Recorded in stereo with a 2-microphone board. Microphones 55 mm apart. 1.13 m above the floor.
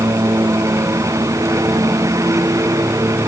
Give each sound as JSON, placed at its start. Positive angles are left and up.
{"t": 0.0, "sound": "a lawn mower", "side_deg": -85}